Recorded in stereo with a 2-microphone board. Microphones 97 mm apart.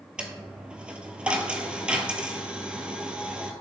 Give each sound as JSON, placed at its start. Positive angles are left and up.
{"t": 0.2, "sound": "a dropped coin", "side_deg": -10, "distance_m": 1.1}